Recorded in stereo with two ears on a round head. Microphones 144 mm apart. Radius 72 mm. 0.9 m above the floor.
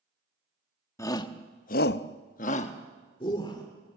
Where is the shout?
20° left (ahead or behind), 1.3 m; by 3.6 s 25° left (ahead or behind), 2.5 m.